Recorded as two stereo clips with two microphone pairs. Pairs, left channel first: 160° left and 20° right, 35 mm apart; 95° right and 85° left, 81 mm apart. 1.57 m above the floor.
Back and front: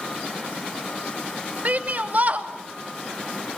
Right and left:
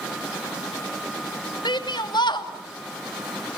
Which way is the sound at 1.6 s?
65° right.